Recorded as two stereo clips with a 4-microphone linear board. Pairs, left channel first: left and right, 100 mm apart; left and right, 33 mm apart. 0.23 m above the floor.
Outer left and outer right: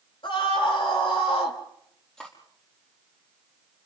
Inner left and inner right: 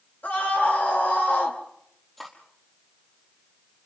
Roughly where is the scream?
Left.